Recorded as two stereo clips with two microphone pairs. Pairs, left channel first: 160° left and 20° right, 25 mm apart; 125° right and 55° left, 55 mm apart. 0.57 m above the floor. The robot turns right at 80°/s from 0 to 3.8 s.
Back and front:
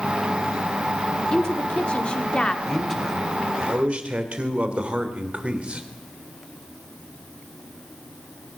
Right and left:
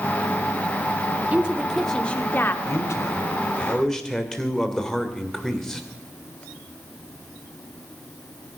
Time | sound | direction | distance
1.3 | a woman speaking | 110° left | 1.4 m
2.6 | a man speaking | 135° right | 2.5 m